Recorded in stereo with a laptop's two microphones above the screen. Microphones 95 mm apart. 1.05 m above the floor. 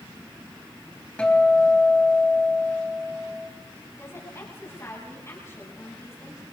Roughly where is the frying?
I don't hear frying.